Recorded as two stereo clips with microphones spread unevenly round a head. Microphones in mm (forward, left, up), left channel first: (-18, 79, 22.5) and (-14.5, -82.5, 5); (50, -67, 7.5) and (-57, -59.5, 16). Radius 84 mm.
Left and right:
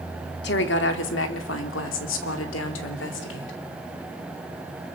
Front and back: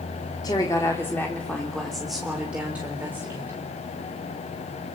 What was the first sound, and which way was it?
A woman speaking, 65° left.